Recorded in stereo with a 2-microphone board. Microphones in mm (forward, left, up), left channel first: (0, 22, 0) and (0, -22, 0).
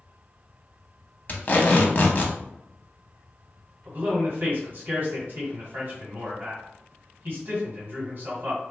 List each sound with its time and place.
1.3 s tape being pulled: 40° left (ahead or behind), 0.6 m
3.9 s a man speaking: 45° right (ahead or behind), 1.5 m